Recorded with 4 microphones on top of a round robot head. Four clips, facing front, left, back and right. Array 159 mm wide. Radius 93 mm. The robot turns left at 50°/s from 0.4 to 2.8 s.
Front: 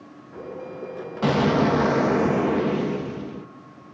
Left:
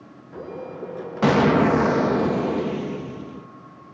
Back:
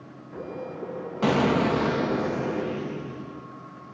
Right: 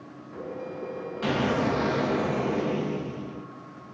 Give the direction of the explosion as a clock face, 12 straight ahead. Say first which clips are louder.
Left 9 dB, front 2 dB; 9 o'clock.